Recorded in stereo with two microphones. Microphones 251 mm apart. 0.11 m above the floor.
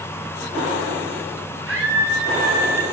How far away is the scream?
About 10 m.